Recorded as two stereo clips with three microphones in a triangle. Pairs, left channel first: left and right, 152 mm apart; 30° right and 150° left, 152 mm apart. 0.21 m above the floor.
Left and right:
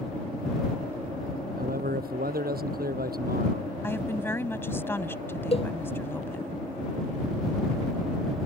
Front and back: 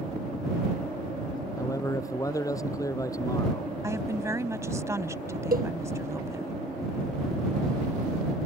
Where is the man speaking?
100° right.